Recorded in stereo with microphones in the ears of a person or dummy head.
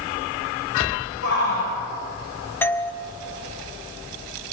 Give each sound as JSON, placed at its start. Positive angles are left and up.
{"t": 1.2, "sound": "a shout", "side_deg": 65, "distance_m": 7.0}
{"t": 2.6, "sound": "a doorbell", "side_deg": 10, "distance_m": 1.1}